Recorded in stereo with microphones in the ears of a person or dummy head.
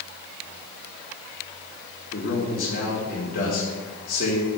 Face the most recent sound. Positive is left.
turn(degrees=50)  # may be behind; listen again after turning